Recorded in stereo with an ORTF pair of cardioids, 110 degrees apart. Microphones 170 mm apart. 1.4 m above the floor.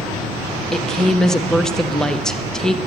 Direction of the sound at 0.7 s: 5° left.